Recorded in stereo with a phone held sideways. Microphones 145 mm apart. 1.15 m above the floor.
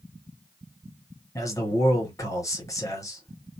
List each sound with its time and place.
1.4 s a man speaking: 20° left (ahead or behind), 1.0 m